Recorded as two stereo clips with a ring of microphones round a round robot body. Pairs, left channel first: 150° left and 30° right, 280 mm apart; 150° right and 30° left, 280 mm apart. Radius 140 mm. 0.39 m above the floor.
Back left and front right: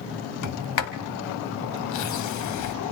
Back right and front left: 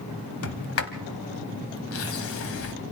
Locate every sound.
0.4 s a sliding door: 170° left, 1.6 m